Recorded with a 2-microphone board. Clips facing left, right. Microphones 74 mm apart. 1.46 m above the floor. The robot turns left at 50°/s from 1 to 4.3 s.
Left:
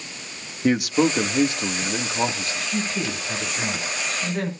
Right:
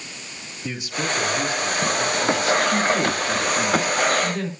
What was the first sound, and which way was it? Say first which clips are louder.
A man speaking: left 9 dB; 110° left.